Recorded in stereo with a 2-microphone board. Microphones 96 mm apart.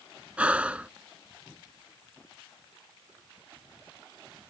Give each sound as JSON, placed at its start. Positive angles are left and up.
{"t": 0.4, "sound": "breathing", "side_deg": -15}